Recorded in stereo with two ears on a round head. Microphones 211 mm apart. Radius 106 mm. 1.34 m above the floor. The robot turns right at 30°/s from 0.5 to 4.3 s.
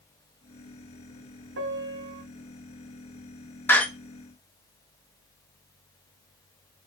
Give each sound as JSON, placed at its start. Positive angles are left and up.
{"t": 1.6, "sound": "a piano", "side_deg": -50, "distance_m": 1.3}
{"t": 3.7, "sound": "a door slam", "side_deg": 10, "distance_m": 0.9}